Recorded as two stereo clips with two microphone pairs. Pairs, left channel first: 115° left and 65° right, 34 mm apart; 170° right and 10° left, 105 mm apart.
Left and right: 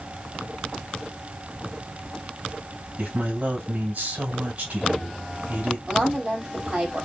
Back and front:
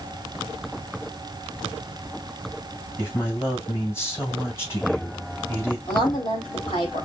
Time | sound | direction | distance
3.0 | a man speaking | 105° right | 3 m
5.9 | a woman speaking | 130° right | 2.5 m